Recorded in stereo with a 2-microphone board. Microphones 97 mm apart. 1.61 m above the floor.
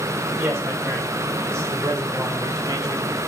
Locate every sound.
0.4 s a man speaking: 25° right (ahead or behind), 5 m; by 3.2 s 45° right (ahead or behind), 3.5 m